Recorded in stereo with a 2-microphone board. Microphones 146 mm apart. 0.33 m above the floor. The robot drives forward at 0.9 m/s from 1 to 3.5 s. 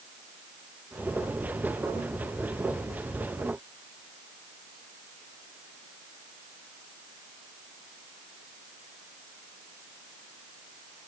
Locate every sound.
Only background noise.